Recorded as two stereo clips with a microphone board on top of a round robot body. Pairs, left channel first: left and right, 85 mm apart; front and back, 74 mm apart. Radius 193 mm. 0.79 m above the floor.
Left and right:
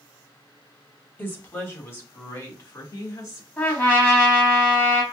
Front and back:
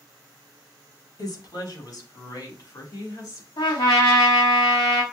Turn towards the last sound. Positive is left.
turn(degrees=20)